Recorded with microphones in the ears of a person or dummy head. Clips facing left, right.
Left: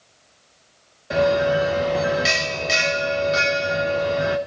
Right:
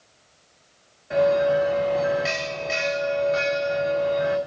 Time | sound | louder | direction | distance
1.1 | a bell | even | 50° left (ahead or behind) | 0.9 m